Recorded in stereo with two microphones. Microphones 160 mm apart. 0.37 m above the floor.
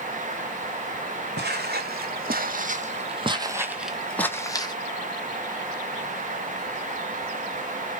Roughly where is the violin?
I don't hear a violin.